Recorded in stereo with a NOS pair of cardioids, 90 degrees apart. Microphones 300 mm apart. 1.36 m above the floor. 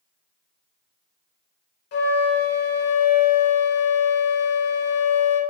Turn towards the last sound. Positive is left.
turn(degrees=55)